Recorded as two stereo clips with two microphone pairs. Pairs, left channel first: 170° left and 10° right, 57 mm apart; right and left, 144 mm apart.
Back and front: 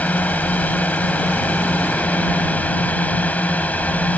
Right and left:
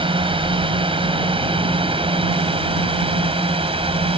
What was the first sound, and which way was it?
A drone, 120° left.